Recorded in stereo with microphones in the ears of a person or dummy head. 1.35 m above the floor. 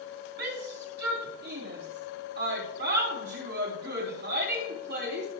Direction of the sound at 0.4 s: 55° right (ahead or behind).